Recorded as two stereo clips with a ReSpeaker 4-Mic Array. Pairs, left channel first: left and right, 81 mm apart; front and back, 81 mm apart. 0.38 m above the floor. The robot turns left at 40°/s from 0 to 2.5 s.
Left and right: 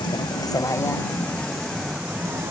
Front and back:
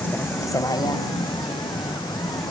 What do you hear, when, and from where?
0.0 s a vehicle: 70° left; by 2.5 s 30° right